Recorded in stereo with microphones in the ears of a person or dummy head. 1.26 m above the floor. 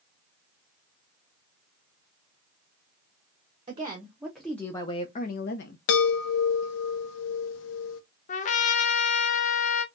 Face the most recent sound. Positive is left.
turn(degrees=35)  # may be behind; listen again after turning